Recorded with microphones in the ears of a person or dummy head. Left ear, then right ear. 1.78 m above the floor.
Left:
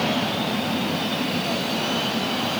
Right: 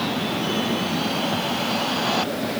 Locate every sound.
Only background noise.